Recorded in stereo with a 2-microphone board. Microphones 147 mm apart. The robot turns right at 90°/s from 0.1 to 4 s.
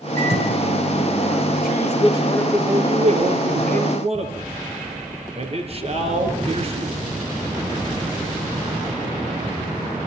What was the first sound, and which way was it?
A microwave, 60° right.